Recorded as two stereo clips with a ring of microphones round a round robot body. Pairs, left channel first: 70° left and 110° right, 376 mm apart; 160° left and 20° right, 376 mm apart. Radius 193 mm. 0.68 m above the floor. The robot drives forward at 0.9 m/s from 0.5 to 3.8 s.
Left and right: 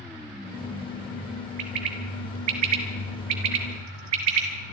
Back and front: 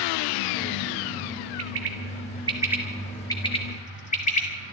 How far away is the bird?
About 1.9 m.